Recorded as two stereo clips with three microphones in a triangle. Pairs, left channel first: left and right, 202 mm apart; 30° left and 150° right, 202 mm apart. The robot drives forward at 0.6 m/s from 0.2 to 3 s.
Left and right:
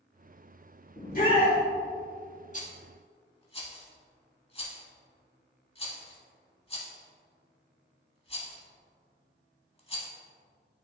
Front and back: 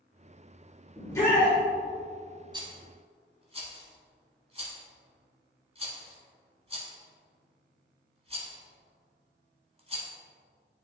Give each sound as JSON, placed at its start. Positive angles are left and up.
{"t": 1.0, "sound": "a shout", "azimuth_deg": 95, "distance_m": 1.7}
{"t": 2.5, "sound": "a rattle", "azimuth_deg": 145, "distance_m": 0.9}